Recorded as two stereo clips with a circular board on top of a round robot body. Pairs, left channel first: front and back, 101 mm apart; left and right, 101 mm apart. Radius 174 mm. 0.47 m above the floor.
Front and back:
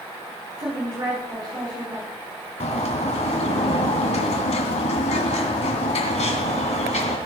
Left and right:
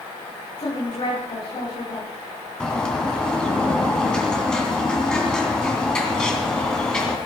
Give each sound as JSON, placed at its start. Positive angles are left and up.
{"t": 0.6, "sound": "a woman speaking", "azimuth_deg": 130, "distance_m": 8.0}
{"t": 2.6, "sound": "a bird", "azimuth_deg": 5, "distance_m": 2.5}